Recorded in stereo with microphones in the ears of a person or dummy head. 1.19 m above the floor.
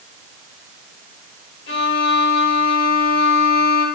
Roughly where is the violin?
Left.